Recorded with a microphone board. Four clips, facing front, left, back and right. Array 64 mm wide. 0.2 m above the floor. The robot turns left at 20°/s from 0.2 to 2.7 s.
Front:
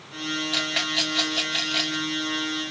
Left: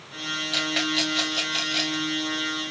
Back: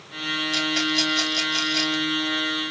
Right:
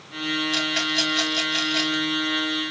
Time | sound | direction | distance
0.5 | a rattle | 30° left | 1.8 m